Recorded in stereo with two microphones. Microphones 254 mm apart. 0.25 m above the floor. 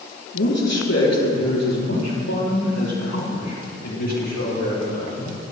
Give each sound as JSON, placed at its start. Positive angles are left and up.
{"t": 0.3, "sound": "a man speaking", "side_deg": 65, "distance_m": 4.0}